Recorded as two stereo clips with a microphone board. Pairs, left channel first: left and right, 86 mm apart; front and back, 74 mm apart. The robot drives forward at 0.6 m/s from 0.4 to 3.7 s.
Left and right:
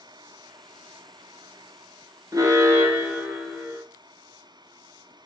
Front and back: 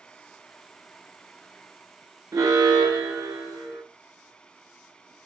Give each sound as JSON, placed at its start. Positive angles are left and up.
{"t": 2.3, "sound": "an alarm", "azimuth_deg": -135, "distance_m": 0.7}